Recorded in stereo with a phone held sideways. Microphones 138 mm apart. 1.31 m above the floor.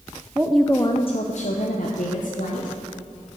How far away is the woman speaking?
About 0.7 m.